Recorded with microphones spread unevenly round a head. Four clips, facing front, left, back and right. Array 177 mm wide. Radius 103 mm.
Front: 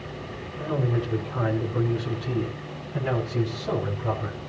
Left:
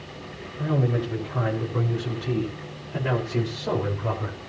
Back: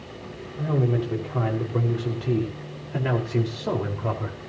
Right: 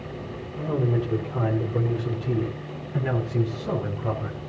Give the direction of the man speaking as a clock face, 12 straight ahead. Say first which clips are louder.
Even, back 2 dB; 5 o'clock.